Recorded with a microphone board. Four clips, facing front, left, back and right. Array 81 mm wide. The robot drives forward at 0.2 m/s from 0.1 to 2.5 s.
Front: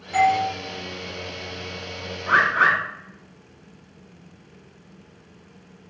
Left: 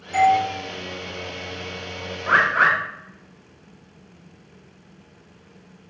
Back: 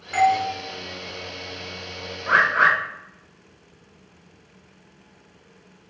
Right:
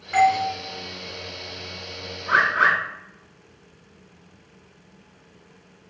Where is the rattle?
No rattle in this recording.